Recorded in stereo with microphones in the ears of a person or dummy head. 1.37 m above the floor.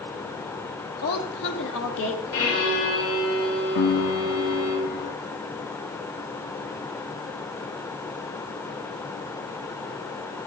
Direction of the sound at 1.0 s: 55° left (ahead or behind).